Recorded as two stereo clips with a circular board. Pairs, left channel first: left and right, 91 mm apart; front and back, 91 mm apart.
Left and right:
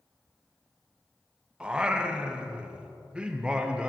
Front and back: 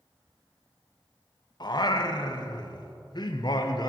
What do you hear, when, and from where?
1.6 s singing: 15° right, 0.5 m